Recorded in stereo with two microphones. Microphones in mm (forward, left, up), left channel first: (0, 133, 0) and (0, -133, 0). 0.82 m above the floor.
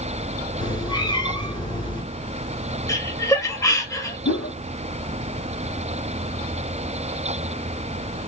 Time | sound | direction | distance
0.6 | a cat meowing | 15° left (ahead or behind) | 1.5 m
2.9 | laughter | 10° left (ahead or behind) | 1.3 m
4.2 | a whoosh | 60° left (ahead or behind) | 0.9 m